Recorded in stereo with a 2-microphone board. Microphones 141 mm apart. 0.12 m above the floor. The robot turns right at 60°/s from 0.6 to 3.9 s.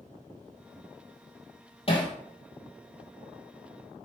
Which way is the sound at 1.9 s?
40° left (ahead or behind).